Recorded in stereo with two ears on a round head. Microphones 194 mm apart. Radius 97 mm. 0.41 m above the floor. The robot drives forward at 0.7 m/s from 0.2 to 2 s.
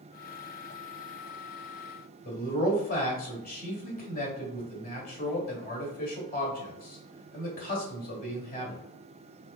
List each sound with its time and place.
2.2 s a man speaking: 40° left (ahead or behind), 1.8 m